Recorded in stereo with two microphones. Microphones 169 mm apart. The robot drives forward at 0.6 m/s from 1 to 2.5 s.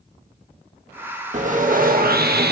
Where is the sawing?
45° right (ahead or behind), 1.6 m; by 2.5 s 70° right (ahead or behind), 1.2 m.